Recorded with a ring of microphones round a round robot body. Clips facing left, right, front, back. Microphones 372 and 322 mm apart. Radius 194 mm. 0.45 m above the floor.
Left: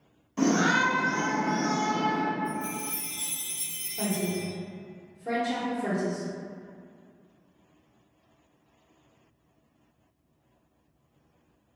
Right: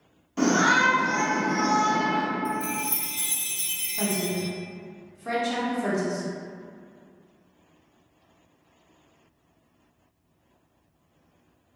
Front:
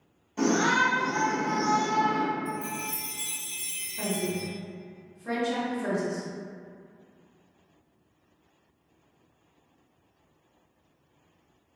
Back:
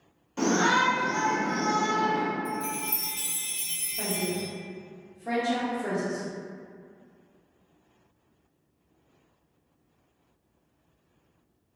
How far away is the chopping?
No chopping in this recording.